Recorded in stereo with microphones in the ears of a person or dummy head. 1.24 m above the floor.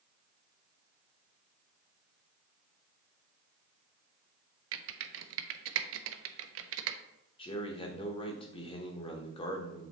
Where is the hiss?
I don't hear a hiss.